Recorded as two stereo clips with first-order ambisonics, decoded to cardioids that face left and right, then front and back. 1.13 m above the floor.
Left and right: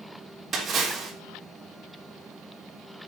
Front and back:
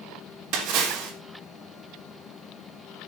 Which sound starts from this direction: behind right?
A splash, at 0.5 s.